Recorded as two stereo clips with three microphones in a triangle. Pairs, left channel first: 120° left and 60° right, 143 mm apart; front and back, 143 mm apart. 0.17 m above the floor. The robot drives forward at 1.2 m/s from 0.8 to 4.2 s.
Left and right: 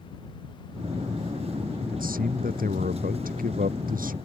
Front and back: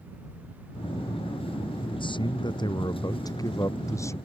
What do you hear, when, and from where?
1.9 s a man speaking: 55° right; by 4.2 s 70° right